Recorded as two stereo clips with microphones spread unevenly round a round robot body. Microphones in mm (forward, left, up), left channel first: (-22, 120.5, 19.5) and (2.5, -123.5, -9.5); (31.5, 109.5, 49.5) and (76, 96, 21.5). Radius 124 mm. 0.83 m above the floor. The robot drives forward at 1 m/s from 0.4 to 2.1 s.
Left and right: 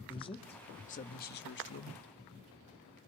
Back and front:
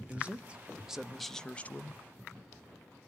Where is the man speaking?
25° left, 1.8 m; by 2.0 s 100° left, 1.1 m.